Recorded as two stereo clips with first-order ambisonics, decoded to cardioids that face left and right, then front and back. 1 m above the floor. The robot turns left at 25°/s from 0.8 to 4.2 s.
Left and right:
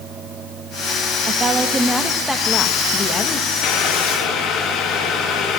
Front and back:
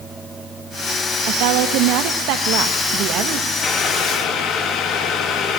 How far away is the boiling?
About 2.0 m.